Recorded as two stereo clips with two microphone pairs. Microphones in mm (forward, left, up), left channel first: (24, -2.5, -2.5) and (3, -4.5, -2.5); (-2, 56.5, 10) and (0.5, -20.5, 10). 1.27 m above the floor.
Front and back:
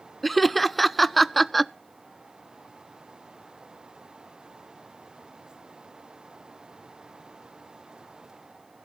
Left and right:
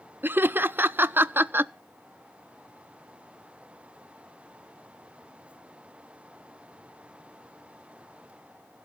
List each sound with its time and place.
0.2 s laughter: 75° right, 0.5 m